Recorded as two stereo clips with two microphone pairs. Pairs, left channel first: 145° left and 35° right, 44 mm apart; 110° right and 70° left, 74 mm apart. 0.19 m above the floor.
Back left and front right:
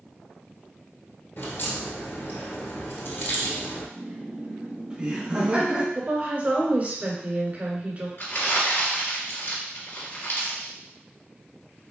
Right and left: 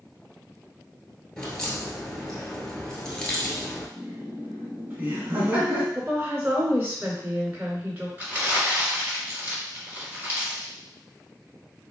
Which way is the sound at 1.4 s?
170° left.